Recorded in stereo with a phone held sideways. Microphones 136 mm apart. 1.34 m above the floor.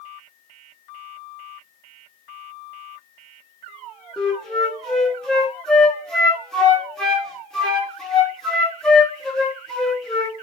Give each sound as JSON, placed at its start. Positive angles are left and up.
{"t": 4.2, "sound": "a flute", "side_deg": 5, "distance_m": 0.9}